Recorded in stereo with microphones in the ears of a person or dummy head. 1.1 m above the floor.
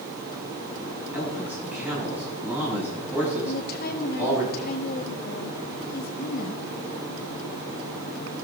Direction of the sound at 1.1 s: 10° right (ahead or behind).